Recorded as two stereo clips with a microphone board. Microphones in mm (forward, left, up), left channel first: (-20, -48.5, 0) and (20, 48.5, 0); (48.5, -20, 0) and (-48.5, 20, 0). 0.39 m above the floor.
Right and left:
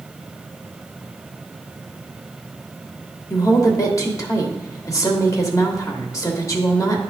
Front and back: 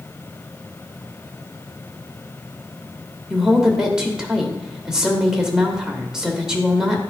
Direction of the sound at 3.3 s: 125° right.